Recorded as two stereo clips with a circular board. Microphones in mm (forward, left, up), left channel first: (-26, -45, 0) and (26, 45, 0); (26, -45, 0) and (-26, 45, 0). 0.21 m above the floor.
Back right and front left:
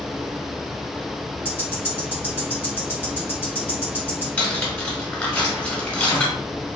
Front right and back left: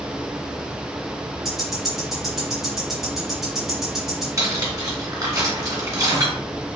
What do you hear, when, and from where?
1.4 s ticking: 155° right, 1.5 m
4.4 s cutlery clinking: 170° left, 1.4 m